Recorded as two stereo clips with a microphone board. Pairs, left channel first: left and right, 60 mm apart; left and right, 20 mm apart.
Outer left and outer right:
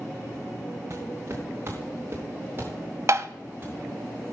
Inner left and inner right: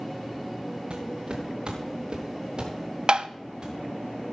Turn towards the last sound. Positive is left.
turn(degrees=-55)  # may be behind; listen again after turning